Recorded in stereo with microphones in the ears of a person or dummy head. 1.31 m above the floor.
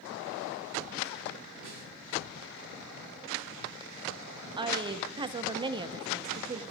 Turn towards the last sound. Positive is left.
turn(degrees=-30)  # may be behind; listen again after turning